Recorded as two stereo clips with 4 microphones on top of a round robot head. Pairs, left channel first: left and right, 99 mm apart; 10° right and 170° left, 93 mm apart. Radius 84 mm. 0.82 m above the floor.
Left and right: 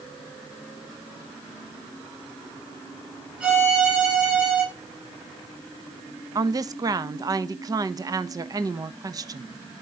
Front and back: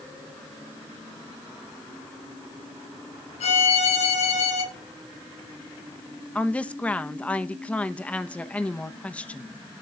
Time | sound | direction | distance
3.4 | a violin | 10° right | 5 m
6.3 | a woman speaking | 75° right | 1.1 m